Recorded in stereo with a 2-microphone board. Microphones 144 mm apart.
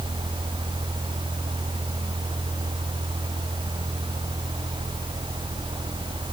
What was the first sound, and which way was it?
Only background noise.